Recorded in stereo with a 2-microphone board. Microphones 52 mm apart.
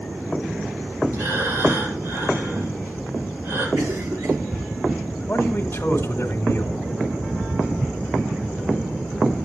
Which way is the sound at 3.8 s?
75° right (ahead or behind).